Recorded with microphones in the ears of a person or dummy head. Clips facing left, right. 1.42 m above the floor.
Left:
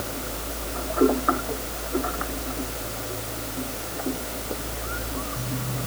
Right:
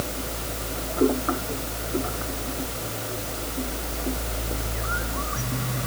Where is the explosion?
No explosion in this recording.